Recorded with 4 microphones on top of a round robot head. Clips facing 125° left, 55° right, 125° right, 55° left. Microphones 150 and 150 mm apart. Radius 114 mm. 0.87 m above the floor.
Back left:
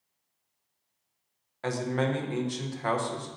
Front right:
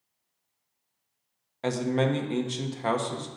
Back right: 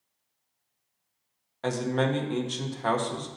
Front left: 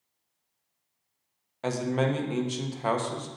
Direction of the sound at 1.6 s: 20° right.